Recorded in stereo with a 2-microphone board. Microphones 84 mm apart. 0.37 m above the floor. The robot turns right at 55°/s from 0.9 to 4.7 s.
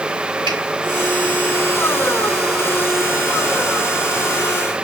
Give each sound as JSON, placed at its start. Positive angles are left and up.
{"t": 0.5, "sound": "a finger snap", "side_deg": -75, "distance_m": 3.0}